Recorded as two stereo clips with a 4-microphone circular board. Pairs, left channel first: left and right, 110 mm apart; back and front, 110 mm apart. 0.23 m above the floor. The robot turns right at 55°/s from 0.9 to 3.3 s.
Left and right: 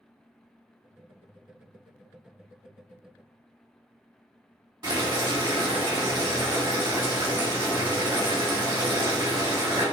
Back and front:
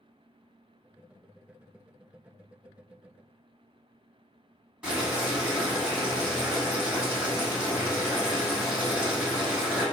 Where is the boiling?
75° right, 1.9 m.